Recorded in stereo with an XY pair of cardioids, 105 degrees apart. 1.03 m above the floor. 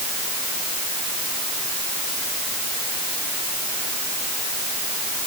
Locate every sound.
Only background noise.